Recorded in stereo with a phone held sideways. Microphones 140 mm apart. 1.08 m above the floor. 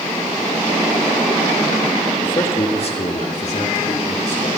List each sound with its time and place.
2.2 s a man speaking: 35° left (ahead or behind), 1.3 m; by 4.5 s 55° left (ahead or behind), 3.5 m